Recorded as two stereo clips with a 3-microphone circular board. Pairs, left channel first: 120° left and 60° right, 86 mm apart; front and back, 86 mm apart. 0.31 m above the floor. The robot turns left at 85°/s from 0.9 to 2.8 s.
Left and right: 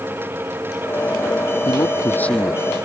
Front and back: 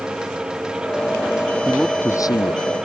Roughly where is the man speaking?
Left.